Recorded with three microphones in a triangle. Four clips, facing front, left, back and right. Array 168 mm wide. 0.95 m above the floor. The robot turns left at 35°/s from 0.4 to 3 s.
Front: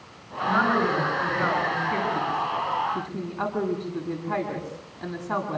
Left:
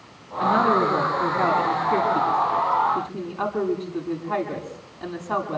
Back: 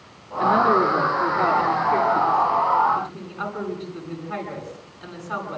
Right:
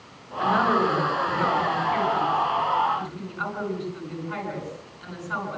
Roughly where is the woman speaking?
Behind left.